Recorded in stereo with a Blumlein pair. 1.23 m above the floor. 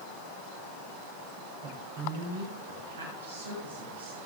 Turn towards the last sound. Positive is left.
turn(degrees=-75)